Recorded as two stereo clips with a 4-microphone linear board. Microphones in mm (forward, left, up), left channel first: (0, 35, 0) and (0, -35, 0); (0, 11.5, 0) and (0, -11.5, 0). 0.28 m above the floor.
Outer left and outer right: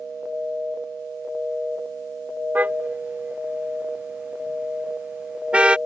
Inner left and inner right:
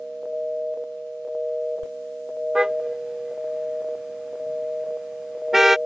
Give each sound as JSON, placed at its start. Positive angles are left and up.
{"t": 2.5, "sound": "a car horn", "side_deg": -25}